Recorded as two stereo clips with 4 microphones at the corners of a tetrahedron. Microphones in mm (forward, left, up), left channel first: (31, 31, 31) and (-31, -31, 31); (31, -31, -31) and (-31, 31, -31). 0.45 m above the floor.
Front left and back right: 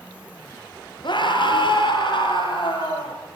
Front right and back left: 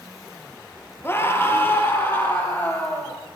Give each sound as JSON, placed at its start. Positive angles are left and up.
{"t": 1.0, "sound": "a scream", "azimuth_deg": 20, "distance_m": 7.5}